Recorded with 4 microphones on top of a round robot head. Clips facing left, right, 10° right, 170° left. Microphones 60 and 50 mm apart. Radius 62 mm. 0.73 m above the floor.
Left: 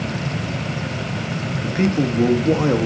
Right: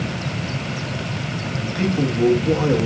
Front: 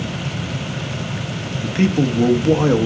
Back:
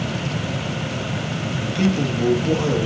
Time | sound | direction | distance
1.6 | a man speaking | 35° left | 1.0 m